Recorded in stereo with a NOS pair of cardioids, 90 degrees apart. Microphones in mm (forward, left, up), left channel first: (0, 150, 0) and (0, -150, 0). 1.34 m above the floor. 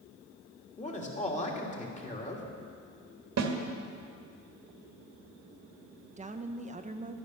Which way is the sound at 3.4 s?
55° right.